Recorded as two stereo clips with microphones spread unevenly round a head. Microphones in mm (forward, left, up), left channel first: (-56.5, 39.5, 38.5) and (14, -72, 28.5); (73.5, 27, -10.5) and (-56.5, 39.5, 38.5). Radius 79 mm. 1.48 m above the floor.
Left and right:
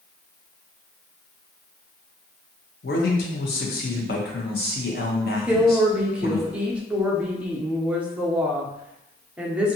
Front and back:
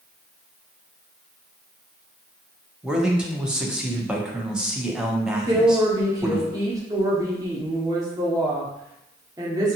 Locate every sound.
2.8 s a man speaking: 95° left, 0.6 m
5.5 s a woman speaking: 140° right, 0.5 m